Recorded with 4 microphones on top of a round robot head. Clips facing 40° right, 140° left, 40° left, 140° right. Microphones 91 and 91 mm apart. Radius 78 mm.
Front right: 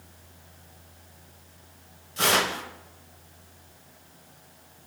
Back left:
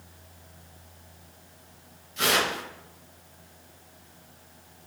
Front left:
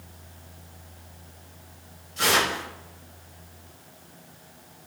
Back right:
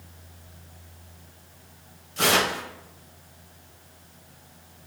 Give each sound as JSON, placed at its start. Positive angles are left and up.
{"t": 2.2, "sound": "tearing paper", "azimuth_deg": -95, "distance_m": 0.7}